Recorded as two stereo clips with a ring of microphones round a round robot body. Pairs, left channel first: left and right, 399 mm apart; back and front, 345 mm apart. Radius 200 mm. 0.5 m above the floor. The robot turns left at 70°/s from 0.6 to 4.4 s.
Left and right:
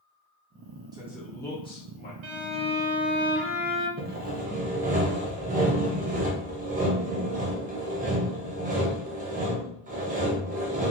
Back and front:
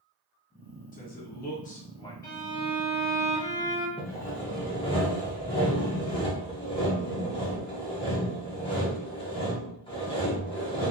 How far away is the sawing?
About 0.5 m.